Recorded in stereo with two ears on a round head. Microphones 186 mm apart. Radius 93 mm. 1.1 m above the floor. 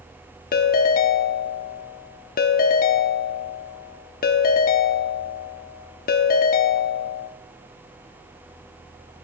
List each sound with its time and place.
0.5 s a ringtone: 45° left (ahead or behind), 0.9 m